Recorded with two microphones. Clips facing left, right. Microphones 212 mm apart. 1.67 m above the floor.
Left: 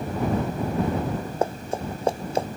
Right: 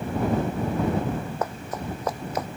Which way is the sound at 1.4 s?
25° left (ahead or behind).